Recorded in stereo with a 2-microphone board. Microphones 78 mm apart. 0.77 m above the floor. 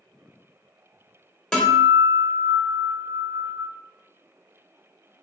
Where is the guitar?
10° left (ahead or behind), 0.9 m.